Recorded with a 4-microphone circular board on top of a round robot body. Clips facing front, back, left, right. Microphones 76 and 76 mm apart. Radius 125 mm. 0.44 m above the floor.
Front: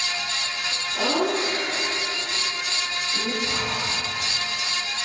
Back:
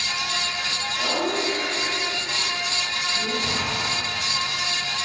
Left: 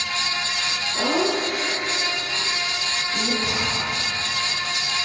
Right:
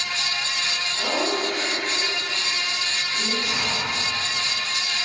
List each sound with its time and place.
0.9 s laughter: 65° left, 9 m; by 3.3 s 70° left, 12.5 m
3.4 s breathing: 145° left, 7 m